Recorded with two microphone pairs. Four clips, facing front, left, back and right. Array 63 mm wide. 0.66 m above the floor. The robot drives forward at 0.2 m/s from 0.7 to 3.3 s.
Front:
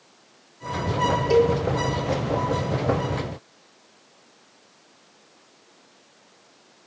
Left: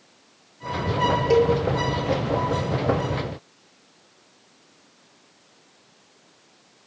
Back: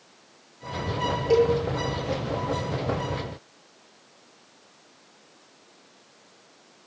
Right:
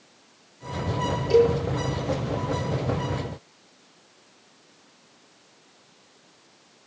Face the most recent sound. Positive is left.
turn(degrees=115)